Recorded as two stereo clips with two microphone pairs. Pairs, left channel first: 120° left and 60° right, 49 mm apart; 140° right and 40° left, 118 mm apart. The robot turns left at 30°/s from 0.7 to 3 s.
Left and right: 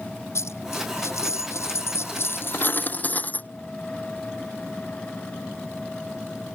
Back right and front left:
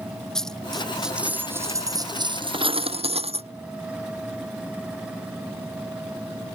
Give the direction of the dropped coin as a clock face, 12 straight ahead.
8 o'clock.